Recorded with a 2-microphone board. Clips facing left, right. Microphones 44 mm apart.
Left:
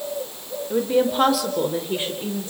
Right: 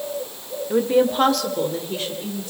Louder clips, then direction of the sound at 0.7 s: Right 2 dB; 15° right (ahead or behind).